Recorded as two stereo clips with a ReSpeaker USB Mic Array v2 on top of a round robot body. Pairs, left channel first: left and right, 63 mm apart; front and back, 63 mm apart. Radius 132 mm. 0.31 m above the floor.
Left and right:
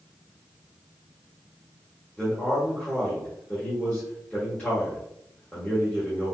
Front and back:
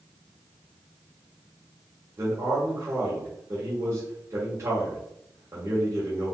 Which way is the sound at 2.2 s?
160° left.